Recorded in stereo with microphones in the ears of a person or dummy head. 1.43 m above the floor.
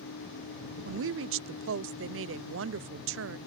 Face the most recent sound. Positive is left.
turn(degrees=-65)  # may be behind; listen again after turning